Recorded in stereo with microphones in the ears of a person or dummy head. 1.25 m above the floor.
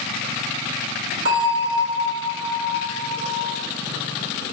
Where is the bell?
60° right (ahead or behind), 3.5 m.